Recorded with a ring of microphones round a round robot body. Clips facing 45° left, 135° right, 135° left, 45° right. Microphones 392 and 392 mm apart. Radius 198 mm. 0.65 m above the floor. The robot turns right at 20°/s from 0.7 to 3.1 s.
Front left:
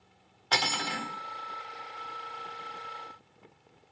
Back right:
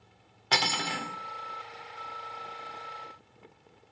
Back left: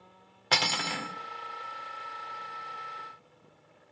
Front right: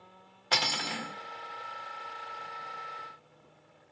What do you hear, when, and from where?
0.5 s cutlery clinking: 170° left, 0.5 m; by 1.1 s 175° left, 0.5 m